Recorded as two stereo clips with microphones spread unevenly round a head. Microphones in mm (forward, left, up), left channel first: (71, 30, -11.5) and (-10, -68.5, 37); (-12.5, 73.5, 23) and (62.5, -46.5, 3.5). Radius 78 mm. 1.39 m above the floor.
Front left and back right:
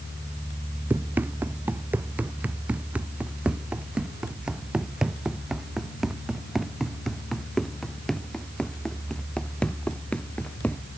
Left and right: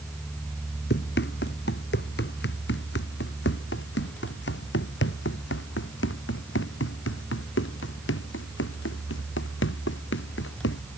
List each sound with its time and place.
0.9 s running footsteps: 155° left; by 10.8 s 135° left